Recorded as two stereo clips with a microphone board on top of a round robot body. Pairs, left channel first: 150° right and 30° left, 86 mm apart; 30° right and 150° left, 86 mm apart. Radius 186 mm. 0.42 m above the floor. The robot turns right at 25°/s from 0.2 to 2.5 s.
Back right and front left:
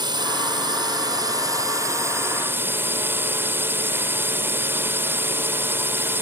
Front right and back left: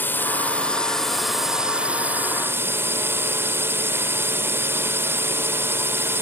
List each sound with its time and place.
0.0 s a drone: 35° left; by 6.2 s 90° left